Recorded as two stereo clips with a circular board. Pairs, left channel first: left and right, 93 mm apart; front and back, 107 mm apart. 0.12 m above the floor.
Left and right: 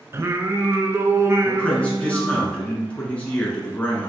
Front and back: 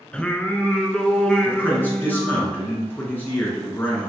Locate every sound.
0.1 s singing: 70° right, 0.5 m
1.4 s a man speaking: 40° left, 1.1 m